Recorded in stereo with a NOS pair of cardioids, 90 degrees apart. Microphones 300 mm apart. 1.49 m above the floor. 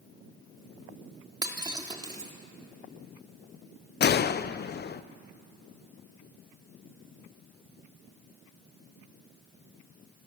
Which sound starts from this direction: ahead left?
A gunshot, at 4.0 s.